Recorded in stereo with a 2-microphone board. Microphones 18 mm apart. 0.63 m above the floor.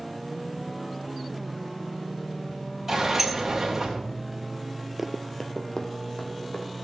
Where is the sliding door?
25° right (ahead or behind), 2.5 m.